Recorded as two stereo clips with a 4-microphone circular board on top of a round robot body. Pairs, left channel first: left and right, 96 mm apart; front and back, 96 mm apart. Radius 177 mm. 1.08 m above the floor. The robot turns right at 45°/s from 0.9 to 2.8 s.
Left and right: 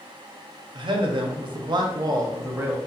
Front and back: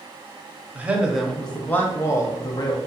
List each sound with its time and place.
0.8 s a man speaking: 105° right, 0.7 m; by 2.8 s 20° right, 0.7 m